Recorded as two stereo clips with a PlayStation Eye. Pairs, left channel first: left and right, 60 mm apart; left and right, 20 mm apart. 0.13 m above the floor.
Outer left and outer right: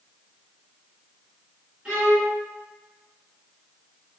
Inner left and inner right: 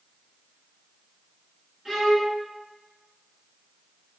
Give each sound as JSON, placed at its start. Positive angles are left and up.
{"t": 1.9, "sound": "a violin", "side_deg": -15, "distance_m": 2.0}